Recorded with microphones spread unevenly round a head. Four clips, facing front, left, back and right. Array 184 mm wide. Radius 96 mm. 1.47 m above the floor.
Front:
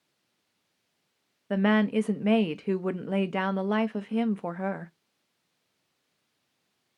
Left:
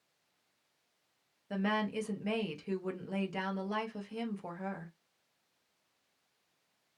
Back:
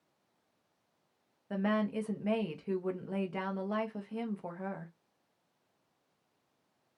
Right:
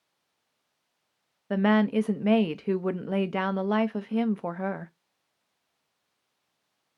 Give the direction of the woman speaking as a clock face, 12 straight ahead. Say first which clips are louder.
Right 11 dB, front 8 dB; 1 o'clock.